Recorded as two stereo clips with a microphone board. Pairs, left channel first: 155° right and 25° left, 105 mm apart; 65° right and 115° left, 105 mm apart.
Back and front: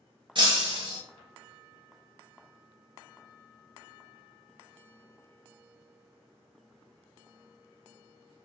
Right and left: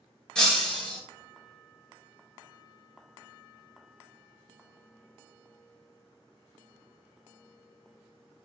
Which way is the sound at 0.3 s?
15° left.